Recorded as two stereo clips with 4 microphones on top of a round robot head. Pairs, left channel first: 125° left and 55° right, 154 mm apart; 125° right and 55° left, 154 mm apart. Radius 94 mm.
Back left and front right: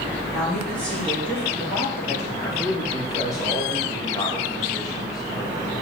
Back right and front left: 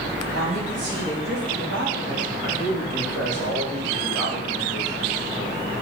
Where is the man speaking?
55° left, 2.5 m.